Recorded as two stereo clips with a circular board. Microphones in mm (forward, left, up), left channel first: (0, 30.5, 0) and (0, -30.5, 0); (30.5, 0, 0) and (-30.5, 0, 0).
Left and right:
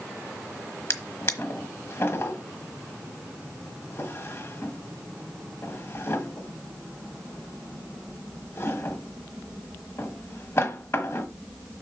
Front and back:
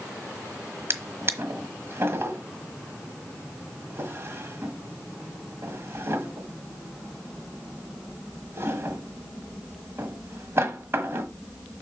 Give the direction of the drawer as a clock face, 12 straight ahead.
8 o'clock.